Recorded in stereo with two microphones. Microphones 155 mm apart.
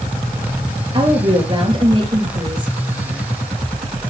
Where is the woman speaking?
30° right (ahead or behind), 2.5 m.